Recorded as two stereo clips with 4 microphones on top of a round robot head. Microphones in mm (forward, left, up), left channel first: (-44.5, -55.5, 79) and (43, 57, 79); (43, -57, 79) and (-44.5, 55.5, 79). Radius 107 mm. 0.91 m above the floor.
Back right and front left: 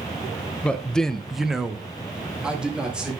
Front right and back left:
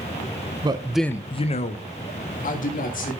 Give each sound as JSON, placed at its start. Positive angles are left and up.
{"t": 0.6, "sound": "a man speaking", "azimuth_deg": 155, "distance_m": 0.7}